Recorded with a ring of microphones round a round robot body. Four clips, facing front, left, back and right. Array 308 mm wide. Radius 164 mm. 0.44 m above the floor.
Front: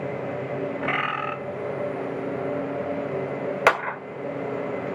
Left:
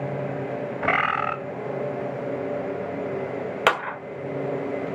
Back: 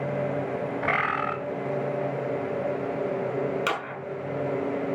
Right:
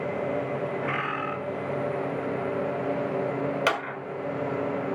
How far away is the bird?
About 1.1 m.